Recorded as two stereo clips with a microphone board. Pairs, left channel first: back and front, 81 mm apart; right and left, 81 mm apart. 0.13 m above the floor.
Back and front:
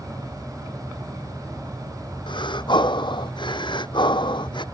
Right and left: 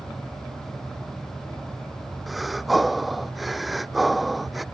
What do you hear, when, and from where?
2.3 s breathing: straight behind